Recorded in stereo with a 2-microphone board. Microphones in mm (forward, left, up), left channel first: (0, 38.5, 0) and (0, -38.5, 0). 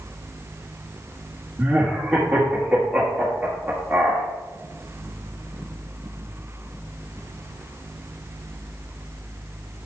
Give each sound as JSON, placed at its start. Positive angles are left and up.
{"t": 1.6, "sound": "laughter", "side_deg": -10, "distance_m": 1.4}